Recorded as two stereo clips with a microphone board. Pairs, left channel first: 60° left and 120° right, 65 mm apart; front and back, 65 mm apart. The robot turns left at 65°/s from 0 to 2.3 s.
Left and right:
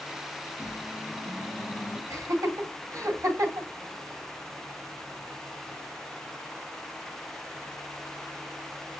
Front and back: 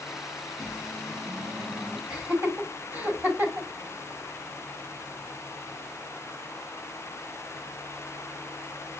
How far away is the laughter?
About 1.7 m.